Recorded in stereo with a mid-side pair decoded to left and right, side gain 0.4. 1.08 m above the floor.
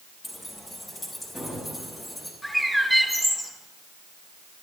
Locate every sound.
0.2 s keys jangling: 25° left, 7 m
2.4 s a bird: 10° left, 6.5 m